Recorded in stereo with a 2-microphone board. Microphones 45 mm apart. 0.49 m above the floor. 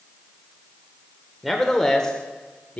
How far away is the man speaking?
About 1.3 m.